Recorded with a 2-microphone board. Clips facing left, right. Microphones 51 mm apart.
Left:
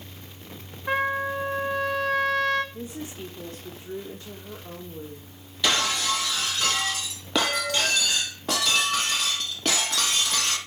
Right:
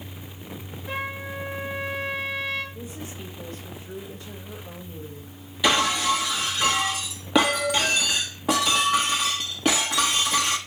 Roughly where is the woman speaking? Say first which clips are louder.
Left 2 dB; left.